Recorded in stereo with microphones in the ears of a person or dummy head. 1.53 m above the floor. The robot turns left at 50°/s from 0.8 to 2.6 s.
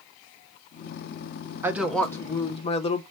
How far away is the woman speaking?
About 1.0 m.